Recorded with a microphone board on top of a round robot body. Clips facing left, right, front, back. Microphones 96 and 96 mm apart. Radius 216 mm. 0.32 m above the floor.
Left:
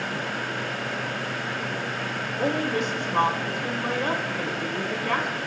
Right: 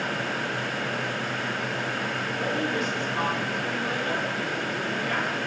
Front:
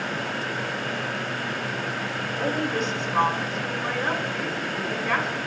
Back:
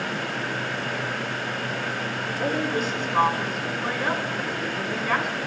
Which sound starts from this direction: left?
A woman speaking, at 2.4 s.